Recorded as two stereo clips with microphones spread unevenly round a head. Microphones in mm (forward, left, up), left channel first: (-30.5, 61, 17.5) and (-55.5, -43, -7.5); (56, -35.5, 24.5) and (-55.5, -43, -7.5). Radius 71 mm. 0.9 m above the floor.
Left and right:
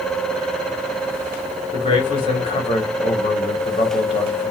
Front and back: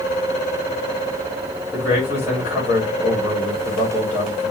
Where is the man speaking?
120° left, 2 m.